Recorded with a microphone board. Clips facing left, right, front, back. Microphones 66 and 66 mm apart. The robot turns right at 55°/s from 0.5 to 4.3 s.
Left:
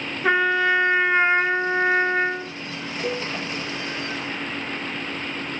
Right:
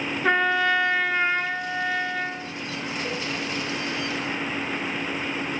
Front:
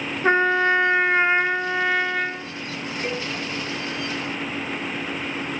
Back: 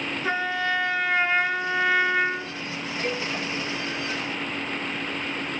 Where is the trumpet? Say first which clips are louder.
Left 2 dB, front 8 dB; 10° left, 1.0 m; by 2.6 s 120° left, 1.0 m.